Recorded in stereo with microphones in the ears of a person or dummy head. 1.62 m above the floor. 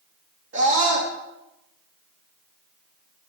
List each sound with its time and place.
0.5 s a scream: 55° right (ahead or behind), 2.5 m